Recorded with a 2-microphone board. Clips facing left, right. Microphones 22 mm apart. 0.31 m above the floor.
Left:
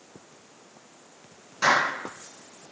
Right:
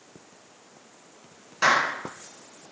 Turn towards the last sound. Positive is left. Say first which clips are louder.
# even
turn(degrees=-25)  # may be behind; listen again after turning